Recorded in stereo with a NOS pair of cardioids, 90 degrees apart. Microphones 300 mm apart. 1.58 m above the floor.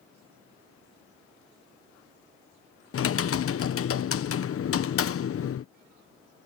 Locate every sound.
2.9 s typing on a keyboard: 45° left